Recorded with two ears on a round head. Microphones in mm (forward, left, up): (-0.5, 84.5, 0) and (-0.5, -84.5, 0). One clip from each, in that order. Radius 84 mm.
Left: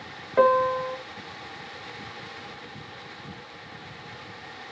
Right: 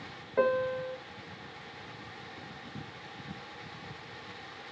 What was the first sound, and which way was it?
A piano, 45° left (ahead or behind).